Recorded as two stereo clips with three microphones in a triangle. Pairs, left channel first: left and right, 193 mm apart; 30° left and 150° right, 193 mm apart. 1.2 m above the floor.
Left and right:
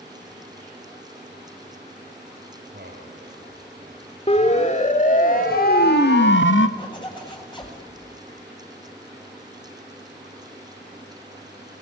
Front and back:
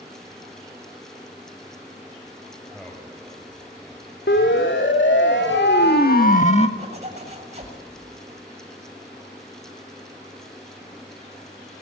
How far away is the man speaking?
About 5.5 m.